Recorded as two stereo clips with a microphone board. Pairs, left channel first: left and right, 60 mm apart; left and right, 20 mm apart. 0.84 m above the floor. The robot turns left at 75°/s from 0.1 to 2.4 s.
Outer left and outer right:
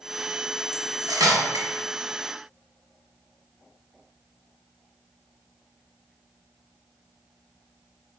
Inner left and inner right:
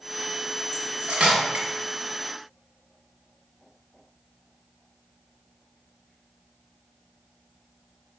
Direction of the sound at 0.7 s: 50° right (ahead or behind).